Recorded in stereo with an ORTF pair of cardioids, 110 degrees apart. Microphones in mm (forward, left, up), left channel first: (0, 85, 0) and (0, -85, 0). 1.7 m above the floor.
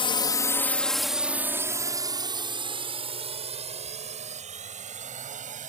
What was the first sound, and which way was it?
A drone, 30° left.